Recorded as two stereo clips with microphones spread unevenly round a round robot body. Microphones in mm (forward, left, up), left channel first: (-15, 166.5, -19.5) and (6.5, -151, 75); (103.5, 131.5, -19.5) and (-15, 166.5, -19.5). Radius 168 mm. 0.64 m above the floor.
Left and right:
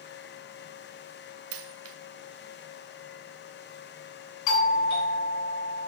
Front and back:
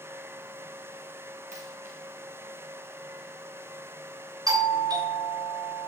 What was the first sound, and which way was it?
A dropped coin, 135° right.